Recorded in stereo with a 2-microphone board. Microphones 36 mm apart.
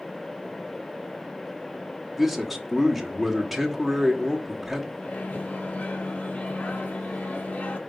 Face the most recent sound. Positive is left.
turn(degrees=55)  # may be behind; listen again after turning